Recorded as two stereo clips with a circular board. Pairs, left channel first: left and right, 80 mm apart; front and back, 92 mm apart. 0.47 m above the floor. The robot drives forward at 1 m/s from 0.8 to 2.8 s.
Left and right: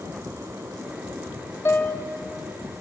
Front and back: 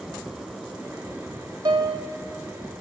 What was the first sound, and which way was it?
A piano, 145° left.